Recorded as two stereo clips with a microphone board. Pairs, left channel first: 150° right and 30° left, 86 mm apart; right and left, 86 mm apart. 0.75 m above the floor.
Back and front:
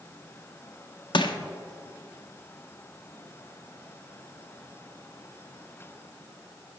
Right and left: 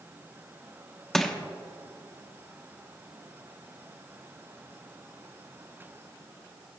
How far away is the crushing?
About 0.6 m.